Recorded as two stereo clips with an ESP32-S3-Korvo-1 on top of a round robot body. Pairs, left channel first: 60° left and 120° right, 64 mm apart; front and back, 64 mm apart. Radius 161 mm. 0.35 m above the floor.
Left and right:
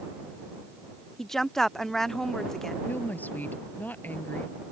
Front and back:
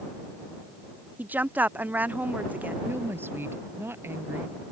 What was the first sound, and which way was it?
A woman speaking, 140° left.